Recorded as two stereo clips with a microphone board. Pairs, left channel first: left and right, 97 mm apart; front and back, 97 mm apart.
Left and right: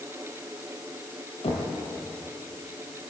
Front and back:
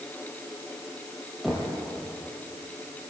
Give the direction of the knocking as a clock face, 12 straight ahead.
9 o'clock.